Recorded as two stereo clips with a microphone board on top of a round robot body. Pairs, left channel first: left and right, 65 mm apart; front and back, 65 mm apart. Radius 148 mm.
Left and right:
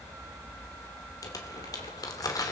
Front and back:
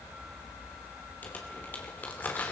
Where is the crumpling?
65° left, 3 m.